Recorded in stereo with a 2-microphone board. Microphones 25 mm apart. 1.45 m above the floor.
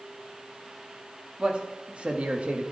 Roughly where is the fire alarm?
No fire alarm in this recording.